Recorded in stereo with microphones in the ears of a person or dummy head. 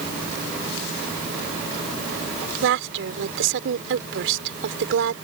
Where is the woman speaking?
75° right (ahead or behind).